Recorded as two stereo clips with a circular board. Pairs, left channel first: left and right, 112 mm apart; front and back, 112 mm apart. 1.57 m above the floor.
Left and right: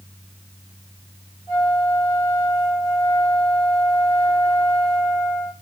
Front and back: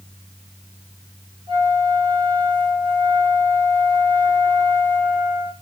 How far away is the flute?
About 7.5 m.